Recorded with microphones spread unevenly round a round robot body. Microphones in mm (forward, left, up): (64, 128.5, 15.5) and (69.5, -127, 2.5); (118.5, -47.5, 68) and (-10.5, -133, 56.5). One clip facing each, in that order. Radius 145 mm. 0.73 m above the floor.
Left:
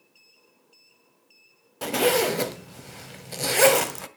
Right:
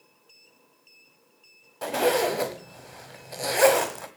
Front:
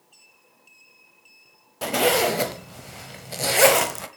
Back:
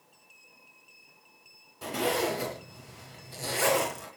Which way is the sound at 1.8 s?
45° left.